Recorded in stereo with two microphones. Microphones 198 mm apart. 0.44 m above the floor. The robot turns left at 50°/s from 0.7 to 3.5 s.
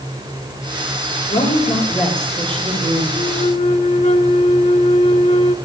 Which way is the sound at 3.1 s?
30° left (ahead or behind).